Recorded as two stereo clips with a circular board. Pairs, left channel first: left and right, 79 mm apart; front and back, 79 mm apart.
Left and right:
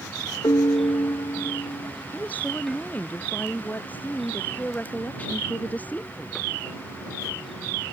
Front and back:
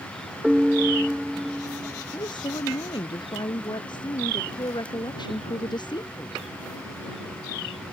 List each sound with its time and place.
0.4 s a piano: 100° left
2.1 s a woman speaking: 20° left